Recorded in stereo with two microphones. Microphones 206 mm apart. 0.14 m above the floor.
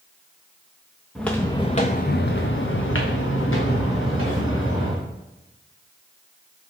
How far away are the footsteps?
About 0.9 m.